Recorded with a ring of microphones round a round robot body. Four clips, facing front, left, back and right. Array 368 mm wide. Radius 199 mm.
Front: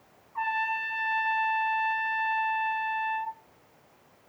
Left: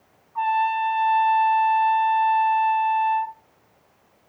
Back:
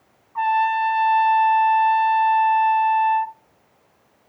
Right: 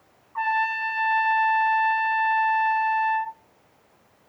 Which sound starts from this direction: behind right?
A trumpet, at 0.3 s.